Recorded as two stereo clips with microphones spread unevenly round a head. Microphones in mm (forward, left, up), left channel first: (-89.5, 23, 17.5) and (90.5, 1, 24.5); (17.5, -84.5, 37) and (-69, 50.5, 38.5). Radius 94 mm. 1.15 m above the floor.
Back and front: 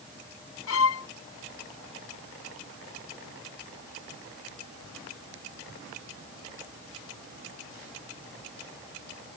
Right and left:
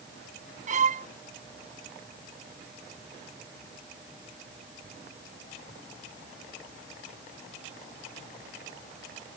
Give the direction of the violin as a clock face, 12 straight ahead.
6 o'clock.